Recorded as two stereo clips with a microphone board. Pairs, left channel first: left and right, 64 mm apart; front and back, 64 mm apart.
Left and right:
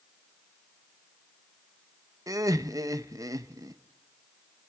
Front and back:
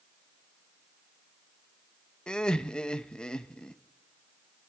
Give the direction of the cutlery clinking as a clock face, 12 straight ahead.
No cutlery clinking in this recording.